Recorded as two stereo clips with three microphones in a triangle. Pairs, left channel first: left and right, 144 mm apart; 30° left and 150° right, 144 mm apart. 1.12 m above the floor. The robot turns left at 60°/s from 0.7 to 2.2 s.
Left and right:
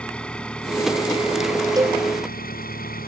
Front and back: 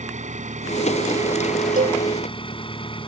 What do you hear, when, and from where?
0.0 s an engine running: 175° left; by 3.1 s 85° left
1.8 s a cowbell: 155° right; by 2.0 s 170° right